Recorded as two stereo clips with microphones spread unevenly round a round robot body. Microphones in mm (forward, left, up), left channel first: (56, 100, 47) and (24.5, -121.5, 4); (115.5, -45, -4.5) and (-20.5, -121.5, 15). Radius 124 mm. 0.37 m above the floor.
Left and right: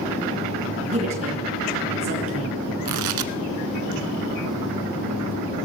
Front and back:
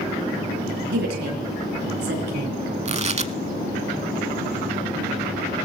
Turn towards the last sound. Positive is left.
turn(degrees=-105)